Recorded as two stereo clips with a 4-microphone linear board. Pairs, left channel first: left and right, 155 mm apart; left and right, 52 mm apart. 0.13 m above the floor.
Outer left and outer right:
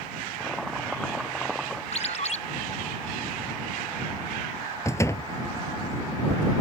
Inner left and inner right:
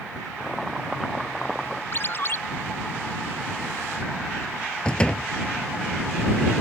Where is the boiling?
Centre (ahead or behind).